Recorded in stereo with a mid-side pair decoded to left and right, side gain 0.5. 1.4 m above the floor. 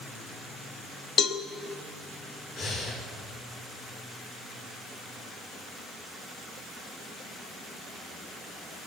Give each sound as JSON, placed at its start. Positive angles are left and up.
{"t": 1.2, "sound": "a cowbell", "azimuth_deg": 55, "distance_m": 1.0}
{"t": 2.6, "sound": "breathing", "azimuth_deg": 65, "distance_m": 4.5}